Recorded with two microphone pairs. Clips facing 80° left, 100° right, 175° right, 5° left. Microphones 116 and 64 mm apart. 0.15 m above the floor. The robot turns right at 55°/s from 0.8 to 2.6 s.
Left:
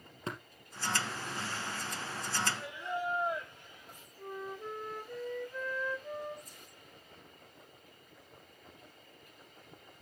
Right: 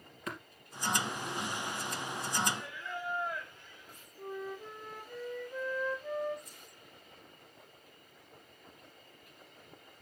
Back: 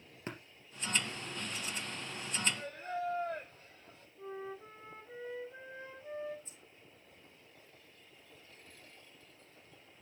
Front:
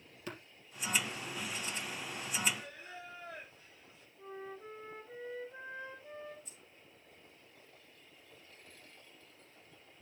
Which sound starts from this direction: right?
A flute, at 4.2 s.